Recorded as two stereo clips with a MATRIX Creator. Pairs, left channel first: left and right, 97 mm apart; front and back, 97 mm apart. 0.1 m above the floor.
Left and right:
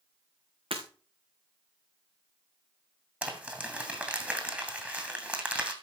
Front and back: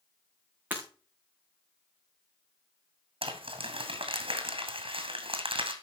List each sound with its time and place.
0.7 s breaking glass: 110° right, 4.5 m
3.2 s crumpling: 165° right, 2.5 m